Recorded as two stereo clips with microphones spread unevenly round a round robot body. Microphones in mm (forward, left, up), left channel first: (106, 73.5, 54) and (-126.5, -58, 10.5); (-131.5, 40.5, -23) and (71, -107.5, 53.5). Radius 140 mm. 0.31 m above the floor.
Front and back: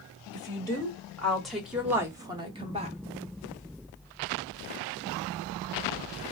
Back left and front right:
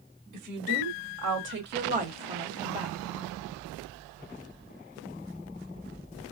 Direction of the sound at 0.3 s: 50° right.